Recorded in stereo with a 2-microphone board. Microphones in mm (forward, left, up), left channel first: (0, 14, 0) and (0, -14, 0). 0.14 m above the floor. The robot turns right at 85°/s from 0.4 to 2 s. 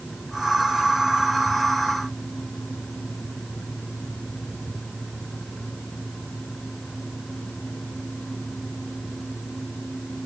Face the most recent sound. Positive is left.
No sound to turn to.